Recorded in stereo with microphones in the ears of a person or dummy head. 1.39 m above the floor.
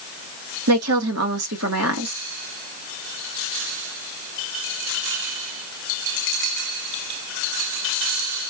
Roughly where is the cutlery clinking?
No cutlery clinking in this recording.